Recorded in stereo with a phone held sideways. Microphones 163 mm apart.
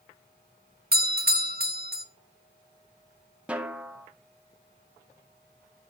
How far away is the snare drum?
About 0.9 m.